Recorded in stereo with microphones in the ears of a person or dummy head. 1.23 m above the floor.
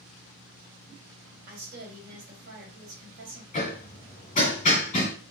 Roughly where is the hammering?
Left.